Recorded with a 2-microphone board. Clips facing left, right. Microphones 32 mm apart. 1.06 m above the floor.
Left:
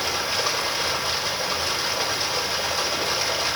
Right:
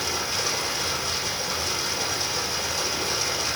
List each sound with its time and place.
0.0 s running water: 25° left (ahead or behind), 3.5 m